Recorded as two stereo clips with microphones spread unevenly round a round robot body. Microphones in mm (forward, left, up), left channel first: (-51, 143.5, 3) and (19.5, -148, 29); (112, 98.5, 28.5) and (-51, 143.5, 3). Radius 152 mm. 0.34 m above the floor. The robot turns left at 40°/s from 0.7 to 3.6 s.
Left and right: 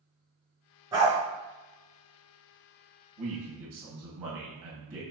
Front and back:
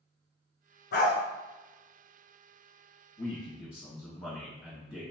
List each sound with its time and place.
0.9 s a dog barking: straight ahead, 1.2 m; by 1.1 s 5° right, 1.2 m
3.2 s a man speaking: 65° right, 1.9 m; by 5.0 s 85° right, 1.9 m